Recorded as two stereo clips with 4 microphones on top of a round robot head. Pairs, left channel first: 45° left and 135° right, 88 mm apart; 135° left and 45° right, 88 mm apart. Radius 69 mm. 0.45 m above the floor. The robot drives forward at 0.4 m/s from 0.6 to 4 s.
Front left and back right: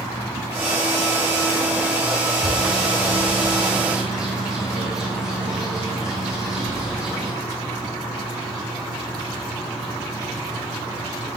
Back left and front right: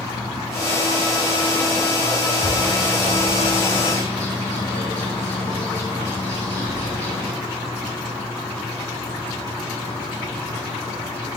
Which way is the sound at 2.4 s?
135° left.